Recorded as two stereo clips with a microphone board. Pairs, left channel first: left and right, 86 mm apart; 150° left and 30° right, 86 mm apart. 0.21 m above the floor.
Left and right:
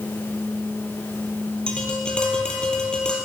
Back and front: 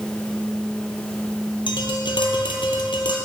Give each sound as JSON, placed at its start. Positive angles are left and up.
{"t": 1.7, "sound": "tapping", "azimuth_deg": 170, "distance_m": 1.0}